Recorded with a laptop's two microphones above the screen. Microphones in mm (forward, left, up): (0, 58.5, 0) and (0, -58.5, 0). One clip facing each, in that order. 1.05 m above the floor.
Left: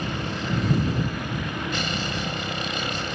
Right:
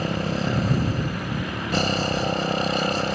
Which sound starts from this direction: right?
A motorcycle, at 0.0 s.